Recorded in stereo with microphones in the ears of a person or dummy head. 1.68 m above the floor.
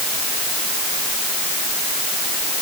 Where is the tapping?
I don't hear tapping.